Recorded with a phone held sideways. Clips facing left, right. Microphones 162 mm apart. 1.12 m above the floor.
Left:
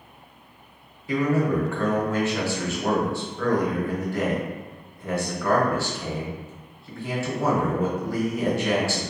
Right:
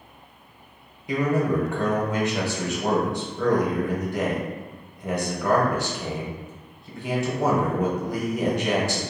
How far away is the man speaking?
About 0.8 m.